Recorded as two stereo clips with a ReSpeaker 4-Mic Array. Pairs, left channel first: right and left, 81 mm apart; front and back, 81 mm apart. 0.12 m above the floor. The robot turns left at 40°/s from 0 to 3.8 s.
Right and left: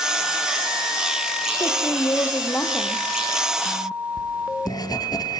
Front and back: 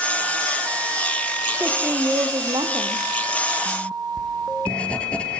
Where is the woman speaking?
115° right, 4 m; by 3.1 s 175° right, 4 m.